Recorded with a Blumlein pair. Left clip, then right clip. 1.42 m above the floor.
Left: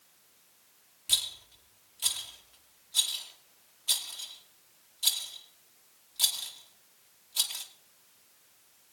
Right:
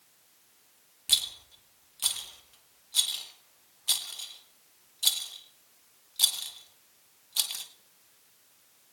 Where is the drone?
No drone in this recording.